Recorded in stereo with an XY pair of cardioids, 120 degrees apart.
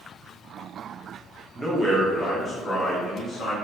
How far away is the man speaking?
About 1.2 m.